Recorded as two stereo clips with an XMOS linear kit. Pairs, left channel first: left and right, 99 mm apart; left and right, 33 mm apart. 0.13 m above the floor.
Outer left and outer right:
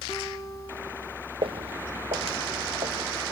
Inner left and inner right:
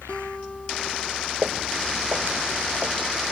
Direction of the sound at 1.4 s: 65° right (ahead or behind).